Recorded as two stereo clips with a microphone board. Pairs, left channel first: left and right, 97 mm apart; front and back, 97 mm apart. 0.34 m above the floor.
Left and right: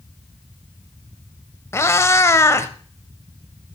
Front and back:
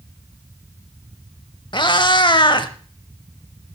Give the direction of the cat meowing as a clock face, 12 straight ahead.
11 o'clock.